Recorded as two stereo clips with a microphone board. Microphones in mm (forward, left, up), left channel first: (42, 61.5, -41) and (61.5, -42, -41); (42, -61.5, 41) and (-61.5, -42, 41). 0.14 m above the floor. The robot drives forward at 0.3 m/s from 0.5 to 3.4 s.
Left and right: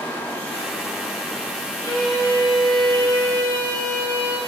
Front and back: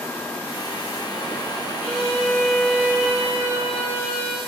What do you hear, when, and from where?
1.8 s a violin: 105° right, 2 m; by 4.4 s 120° right, 2.5 m